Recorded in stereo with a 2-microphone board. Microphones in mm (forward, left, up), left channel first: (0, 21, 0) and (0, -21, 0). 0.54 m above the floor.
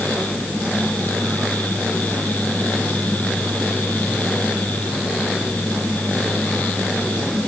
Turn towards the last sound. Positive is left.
No sound to turn to.